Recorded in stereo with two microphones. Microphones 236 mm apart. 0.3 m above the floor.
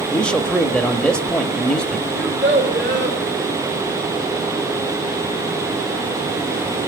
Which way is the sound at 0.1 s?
5° left (ahead or behind).